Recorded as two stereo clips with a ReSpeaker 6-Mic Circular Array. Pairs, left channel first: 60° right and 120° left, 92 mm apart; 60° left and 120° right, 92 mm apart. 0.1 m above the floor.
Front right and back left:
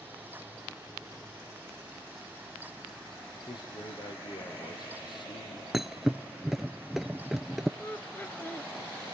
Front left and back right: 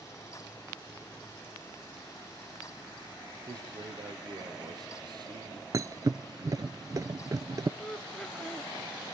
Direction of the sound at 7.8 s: 15° right.